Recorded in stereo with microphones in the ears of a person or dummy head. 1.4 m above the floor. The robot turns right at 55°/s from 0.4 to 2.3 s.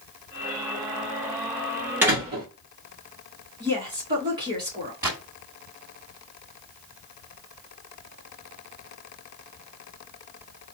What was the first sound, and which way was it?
A door slam, 10° right (ahead or behind).